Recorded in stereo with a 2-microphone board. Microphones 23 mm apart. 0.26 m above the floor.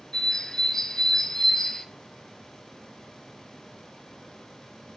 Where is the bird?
15° left (ahead or behind), 0.6 m.